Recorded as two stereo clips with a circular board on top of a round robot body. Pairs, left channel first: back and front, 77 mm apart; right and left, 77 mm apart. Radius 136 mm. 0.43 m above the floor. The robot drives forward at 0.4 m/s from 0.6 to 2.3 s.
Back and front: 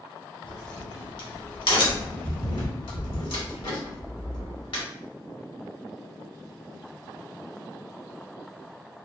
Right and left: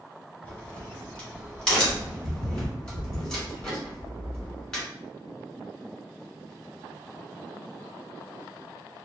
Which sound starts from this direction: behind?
A crack, at 0.4 s.